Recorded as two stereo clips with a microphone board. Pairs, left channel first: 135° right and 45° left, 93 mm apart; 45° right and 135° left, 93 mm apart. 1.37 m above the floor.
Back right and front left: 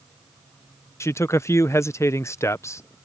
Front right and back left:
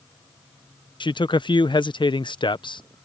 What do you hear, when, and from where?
1.0 s a man speaking: 75° right